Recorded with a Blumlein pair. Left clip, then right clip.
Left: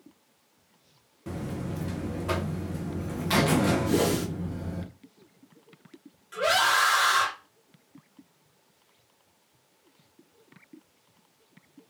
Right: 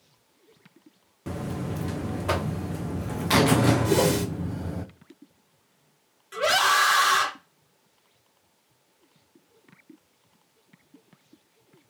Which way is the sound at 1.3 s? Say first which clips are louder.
Right 3 dB; 15° right.